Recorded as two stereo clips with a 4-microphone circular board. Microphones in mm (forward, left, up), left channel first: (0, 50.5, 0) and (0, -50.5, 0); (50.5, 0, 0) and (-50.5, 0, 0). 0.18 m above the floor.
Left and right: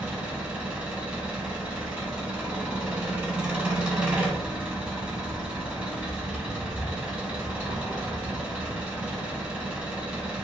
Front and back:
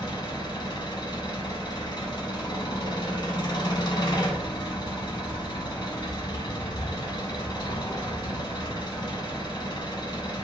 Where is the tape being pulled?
I don't hear tape being pulled.